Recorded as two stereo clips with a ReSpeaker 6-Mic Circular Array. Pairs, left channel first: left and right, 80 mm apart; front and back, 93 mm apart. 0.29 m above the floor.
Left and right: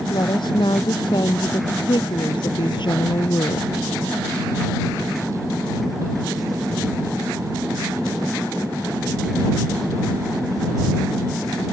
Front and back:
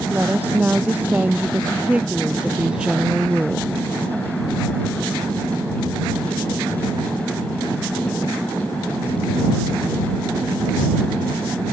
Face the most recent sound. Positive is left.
turn(degrees=95)